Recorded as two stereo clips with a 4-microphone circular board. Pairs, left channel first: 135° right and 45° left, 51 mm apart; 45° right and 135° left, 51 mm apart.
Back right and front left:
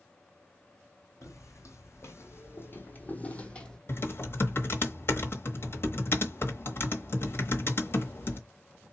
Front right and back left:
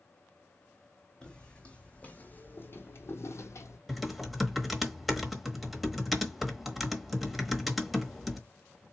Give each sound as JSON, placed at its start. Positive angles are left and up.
{"t": 1.2, "sound": "footsteps", "azimuth_deg": -120, "distance_m": 1.5}
{"t": 3.9, "sound": "typing on a keyboard", "azimuth_deg": -140, "distance_m": 1.1}